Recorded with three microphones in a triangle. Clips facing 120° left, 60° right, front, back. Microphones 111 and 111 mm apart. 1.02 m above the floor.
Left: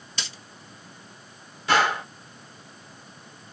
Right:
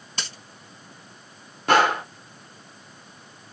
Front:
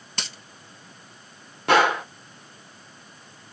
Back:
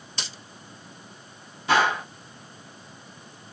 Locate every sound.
0.2 s a dropped coin: 25° right, 2.5 m
1.7 s a gunshot: 25° right, 1.3 m